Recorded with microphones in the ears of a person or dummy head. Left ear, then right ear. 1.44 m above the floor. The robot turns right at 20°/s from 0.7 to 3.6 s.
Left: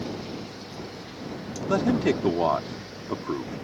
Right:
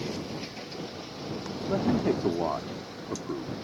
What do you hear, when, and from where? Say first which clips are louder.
1.7 s a man speaking: left 4 dB; 70° left (ahead or behind)